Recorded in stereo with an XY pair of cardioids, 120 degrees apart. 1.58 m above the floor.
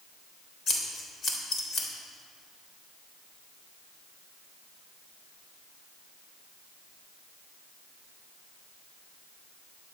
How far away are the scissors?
About 3 m.